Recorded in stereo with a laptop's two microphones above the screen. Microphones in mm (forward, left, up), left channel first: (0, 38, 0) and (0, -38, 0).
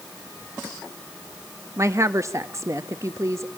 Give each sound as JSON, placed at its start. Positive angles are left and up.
{"t": 1.8, "sound": "a woman speaking", "side_deg": -40, "distance_m": 0.9}